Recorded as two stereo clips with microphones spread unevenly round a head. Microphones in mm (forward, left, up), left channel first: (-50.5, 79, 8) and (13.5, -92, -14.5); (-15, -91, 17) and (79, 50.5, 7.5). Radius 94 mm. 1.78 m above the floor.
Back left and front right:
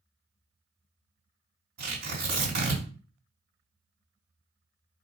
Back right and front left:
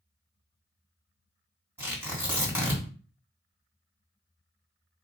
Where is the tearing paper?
20° right, 3 m.